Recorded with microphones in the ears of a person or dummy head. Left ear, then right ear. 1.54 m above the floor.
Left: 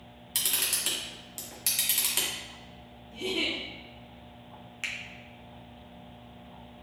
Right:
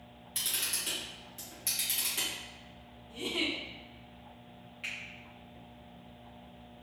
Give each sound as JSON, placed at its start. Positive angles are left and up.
{"t": 0.3, "sound": "a camera shutter", "side_deg": 30, "distance_m": 0.7}
{"t": 3.1, "sound": "a giggle", "side_deg": -40, "distance_m": 0.8}
{"t": 4.8, "sound": "a finger snap", "side_deg": 50, "distance_m": 0.6}